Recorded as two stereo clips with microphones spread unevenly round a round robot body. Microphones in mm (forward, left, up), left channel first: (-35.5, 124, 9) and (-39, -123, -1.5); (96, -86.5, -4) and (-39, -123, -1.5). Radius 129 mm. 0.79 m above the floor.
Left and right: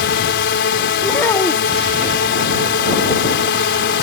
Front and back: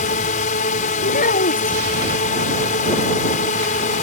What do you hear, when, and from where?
0.0 s a drone: 45° left
1.0 s a child speaking: 5° left